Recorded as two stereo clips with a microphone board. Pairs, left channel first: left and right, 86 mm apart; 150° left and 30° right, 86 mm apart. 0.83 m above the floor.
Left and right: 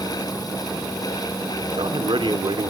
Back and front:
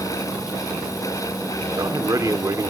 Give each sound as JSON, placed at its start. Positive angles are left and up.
{"t": 1.6, "sound": "a man speaking", "azimuth_deg": -80, "distance_m": 1.9}